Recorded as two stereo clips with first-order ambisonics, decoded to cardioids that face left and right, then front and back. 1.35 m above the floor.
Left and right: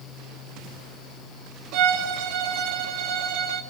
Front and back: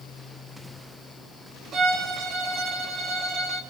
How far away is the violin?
About 3 m.